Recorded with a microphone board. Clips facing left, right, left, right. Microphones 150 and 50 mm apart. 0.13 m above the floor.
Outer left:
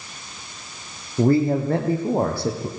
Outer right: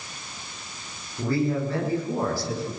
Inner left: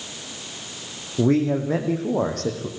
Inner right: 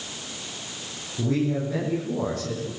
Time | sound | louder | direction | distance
1.2 | a man speaking | outer left 7 dB, inner left 5 dB | 50° left (ahead or behind) | 6 m